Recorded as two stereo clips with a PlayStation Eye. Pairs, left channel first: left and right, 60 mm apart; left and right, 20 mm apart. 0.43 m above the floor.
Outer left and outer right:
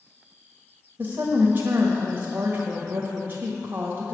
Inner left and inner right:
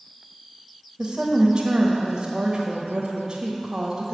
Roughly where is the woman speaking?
Right.